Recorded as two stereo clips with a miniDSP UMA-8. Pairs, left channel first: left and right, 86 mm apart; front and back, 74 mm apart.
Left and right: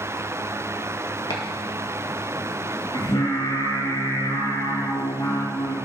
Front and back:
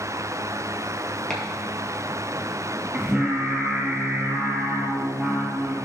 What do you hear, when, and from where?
1.3 s chopping: 80° left, 1.9 m
2.9 s singing: 105° left, 3 m